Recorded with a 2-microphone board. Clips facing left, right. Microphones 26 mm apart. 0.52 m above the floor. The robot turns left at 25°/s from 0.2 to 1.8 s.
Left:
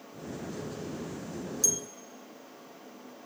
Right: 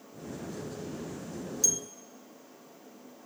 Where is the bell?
5° right (ahead or behind), 1.1 m.